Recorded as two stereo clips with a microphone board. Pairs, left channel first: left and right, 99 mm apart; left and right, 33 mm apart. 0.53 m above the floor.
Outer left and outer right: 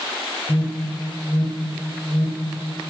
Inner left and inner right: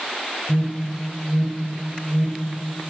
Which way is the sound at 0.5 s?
55° right (ahead or behind).